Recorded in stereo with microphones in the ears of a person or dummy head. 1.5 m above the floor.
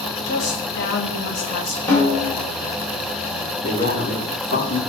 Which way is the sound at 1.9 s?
5° left (ahead or behind).